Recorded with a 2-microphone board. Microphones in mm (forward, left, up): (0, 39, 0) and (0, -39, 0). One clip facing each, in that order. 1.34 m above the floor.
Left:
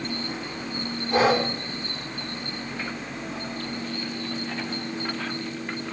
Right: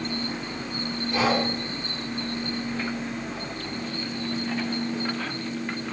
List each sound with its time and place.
1.1 s breathing: 45° left (ahead or behind), 6 m